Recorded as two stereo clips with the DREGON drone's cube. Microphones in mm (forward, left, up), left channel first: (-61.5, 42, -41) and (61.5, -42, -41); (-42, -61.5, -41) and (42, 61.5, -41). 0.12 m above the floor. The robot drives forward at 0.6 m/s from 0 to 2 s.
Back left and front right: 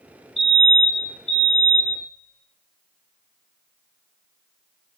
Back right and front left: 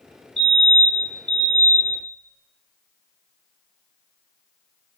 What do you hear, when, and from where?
0.4 s a fire alarm: 105° left, 5 m; by 2.0 s 120° left, 5 m